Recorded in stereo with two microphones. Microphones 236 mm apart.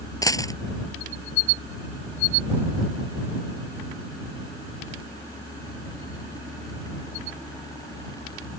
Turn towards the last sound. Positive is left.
turn(degrees=15)  # may be behind; listen again after turning